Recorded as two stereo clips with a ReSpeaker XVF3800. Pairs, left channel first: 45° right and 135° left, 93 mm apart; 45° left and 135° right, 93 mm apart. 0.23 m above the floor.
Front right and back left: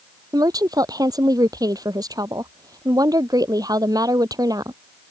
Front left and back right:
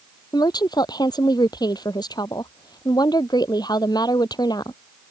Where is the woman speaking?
90° left.